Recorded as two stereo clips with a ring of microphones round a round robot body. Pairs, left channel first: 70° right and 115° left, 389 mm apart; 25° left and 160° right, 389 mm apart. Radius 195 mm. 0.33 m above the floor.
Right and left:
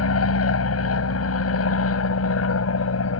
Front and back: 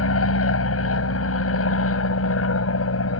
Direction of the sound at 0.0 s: 25° right.